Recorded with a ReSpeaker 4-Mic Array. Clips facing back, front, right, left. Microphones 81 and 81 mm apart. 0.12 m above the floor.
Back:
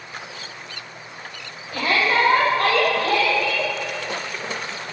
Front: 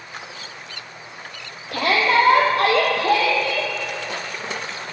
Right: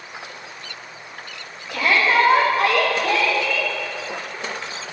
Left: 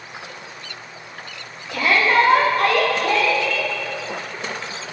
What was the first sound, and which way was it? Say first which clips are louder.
A shout: front 2 dB, left 1 dB; straight ahead.